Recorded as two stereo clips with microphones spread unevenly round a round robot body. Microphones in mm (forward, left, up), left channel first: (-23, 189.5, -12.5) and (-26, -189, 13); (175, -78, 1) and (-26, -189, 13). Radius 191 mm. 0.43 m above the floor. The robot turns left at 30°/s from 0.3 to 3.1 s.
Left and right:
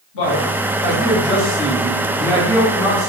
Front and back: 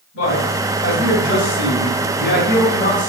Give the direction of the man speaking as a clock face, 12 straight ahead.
10 o'clock.